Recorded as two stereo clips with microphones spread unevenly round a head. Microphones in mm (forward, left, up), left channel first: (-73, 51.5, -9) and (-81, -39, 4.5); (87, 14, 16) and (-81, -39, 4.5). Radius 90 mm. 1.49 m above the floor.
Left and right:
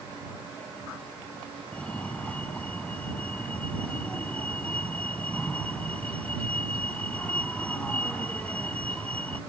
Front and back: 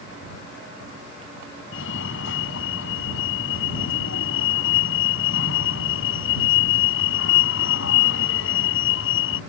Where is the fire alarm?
Straight ahead.